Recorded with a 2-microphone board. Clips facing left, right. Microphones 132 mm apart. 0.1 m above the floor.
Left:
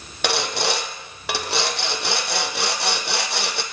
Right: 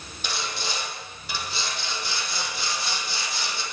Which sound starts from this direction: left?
Sawing, at 0.2 s.